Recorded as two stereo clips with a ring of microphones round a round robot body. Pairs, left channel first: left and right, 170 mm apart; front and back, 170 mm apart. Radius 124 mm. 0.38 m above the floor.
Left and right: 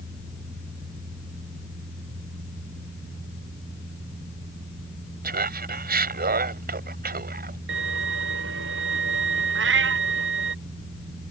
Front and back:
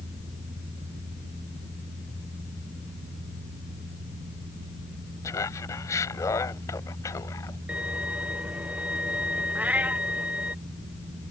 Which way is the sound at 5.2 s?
75° right.